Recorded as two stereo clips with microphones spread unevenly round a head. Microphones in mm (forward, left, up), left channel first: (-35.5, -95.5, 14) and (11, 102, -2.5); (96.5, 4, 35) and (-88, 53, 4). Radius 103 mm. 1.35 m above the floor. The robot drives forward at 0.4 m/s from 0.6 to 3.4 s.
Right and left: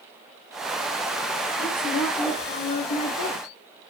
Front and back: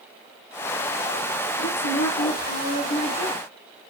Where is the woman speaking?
40° right, 1.0 m; by 3.4 s 90° right, 0.7 m.